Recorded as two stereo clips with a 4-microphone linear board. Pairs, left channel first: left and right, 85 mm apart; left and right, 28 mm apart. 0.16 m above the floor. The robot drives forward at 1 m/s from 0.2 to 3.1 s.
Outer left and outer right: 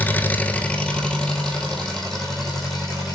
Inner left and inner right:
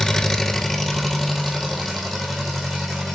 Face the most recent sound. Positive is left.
turn(degrees=5)  # may be behind; listen again after turning